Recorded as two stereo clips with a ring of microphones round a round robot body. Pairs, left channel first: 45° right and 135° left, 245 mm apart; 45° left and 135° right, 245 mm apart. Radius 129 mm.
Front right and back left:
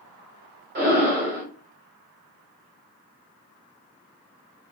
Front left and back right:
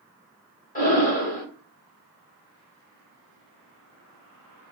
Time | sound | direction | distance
0.8 | breathing | 95° left | 1.3 m